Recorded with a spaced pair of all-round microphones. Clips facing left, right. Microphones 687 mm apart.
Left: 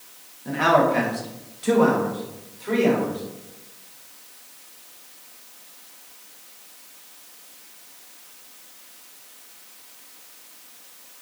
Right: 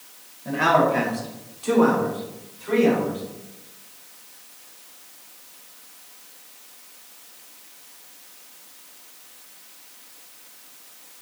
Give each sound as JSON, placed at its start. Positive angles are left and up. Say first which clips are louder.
{"t": 0.5, "sound": "a man speaking", "louder": "left 1 dB", "side_deg": -15, "distance_m": 1.0}